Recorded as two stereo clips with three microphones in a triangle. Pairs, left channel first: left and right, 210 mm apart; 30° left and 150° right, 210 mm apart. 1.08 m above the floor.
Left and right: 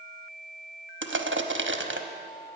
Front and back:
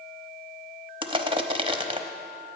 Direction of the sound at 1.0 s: 85° right.